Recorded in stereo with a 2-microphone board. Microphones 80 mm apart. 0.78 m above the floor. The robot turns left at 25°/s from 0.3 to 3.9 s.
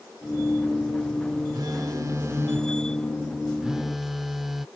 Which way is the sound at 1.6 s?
120° right.